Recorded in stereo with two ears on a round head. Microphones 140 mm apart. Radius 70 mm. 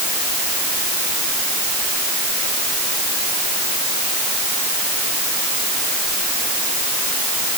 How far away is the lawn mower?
I don't hear a lawn mower.